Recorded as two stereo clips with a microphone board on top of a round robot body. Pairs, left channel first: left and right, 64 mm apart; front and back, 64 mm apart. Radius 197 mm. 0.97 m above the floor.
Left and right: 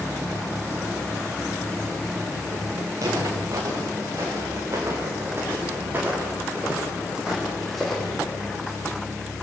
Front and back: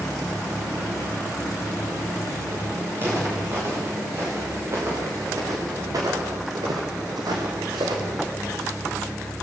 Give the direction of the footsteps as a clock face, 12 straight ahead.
4 o'clock.